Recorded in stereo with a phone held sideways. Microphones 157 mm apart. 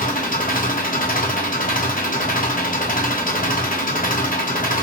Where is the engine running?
60° left (ahead or behind), 0.8 m.